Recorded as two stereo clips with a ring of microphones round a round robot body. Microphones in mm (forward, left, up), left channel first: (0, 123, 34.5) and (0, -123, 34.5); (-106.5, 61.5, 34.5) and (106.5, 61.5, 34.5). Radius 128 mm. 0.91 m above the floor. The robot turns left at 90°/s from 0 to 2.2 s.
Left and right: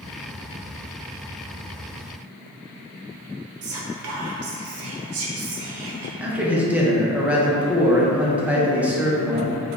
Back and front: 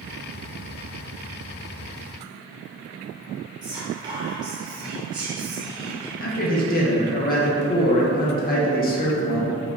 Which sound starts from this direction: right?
Whispering, at 3.6 s.